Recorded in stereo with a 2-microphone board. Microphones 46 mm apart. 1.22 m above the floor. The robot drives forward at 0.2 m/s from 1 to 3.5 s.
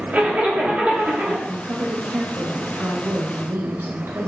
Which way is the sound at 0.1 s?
30° right (ahead or behind).